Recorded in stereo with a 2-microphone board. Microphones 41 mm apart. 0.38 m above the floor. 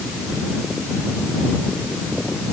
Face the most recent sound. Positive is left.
No sound to turn to.